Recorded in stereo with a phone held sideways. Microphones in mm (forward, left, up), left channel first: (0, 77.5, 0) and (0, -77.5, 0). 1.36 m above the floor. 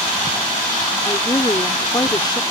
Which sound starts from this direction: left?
A woman speaking, at 1.1 s.